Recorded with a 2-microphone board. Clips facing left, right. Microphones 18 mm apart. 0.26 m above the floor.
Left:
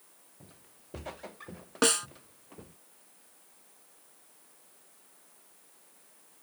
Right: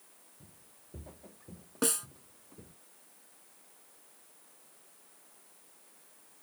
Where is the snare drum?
40° left (ahead or behind).